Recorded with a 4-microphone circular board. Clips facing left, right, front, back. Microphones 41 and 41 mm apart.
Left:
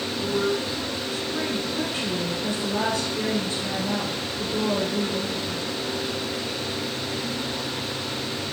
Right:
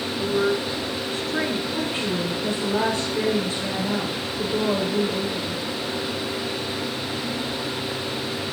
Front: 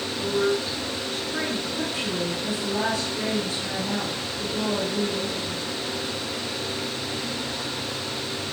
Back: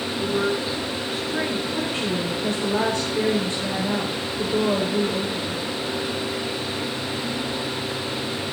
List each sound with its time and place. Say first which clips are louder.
0.2 s a woman speaking: right 3 dB, even; 120° right, 2 m; by 1.6 s 90° right, 2.5 m
1.7 s a woman speaking: right 2 dB, back 3 dB; 135° right, 6.5 m